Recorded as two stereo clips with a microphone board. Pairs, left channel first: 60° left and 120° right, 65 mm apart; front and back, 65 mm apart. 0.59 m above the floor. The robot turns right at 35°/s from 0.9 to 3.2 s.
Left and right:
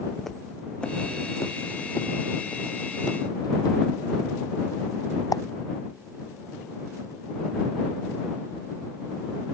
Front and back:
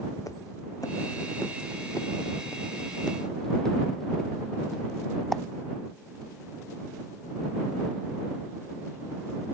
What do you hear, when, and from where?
0.2 s footsteps: 25° right; by 5.4 s 85° left